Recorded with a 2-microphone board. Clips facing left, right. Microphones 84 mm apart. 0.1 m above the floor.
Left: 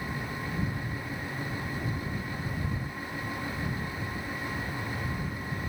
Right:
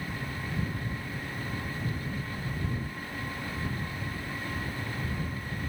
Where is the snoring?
No snoring in this recording.